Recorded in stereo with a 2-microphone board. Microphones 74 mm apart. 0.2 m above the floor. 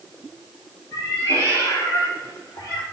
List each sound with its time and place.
0.9 s a cat meowing: 60° left (ahead or behind), 4 m; by 2.8 s 70° left (ahead or behind), 4.5 m